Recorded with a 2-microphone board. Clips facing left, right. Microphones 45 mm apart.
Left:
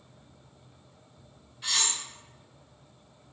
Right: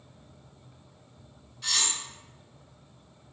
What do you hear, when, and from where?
1.6 s cutlery clinking: 15° left (ahead or behind), 0.6 m